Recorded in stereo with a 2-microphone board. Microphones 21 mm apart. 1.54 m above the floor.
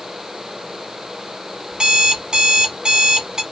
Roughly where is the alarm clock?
Right.